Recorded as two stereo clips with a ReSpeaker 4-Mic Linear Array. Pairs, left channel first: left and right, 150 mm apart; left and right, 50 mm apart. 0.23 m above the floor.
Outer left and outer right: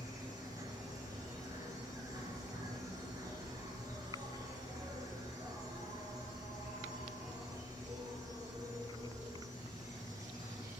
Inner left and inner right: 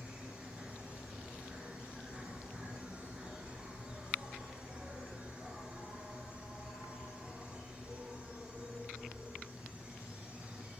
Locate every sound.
0.0 s an insect: 25° right (ahead or behind), 1.2 m